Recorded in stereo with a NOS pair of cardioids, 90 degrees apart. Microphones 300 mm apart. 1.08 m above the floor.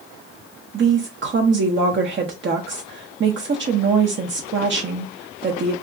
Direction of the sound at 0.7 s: 40° right.